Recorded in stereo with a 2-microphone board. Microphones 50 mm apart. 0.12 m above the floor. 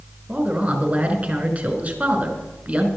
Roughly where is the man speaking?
Right.